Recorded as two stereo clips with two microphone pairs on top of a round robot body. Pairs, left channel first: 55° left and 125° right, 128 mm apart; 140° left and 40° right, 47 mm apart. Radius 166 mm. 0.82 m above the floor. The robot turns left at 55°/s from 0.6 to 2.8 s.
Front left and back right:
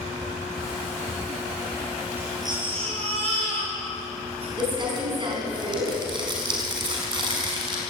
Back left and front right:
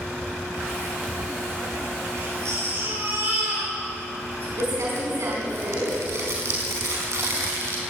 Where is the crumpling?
70° right, 5 m.